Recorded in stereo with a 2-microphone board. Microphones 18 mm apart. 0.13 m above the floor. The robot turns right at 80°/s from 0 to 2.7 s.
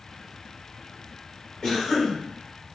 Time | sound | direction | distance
1.6 | a cough | 90° left | 1.7 m